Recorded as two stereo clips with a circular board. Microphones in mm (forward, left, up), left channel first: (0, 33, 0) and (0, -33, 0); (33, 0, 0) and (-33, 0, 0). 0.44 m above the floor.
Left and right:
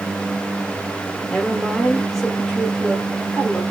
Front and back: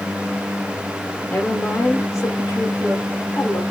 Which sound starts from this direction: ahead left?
A woman speaking, at 1.3 s.